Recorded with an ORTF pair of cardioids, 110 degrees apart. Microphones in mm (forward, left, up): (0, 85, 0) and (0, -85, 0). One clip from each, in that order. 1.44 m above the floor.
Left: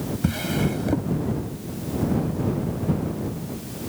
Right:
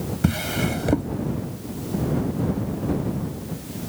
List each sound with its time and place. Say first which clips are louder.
0.2 s a drawer: right 2 dB; 35° right